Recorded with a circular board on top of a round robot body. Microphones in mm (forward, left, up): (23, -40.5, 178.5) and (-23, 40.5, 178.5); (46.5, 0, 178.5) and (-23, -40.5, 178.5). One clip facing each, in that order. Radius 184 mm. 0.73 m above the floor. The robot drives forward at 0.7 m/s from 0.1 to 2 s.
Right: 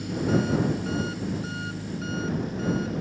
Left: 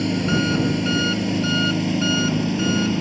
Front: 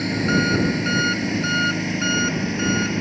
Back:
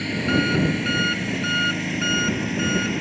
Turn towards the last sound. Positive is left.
turn(degrees=115)